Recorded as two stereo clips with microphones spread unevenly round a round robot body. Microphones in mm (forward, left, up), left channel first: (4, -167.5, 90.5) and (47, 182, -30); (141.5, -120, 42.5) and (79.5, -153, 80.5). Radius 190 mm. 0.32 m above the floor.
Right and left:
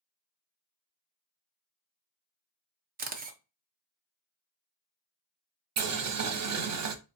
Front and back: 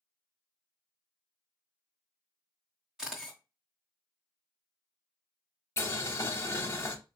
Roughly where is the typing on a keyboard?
No typing on a keyboard in this recording.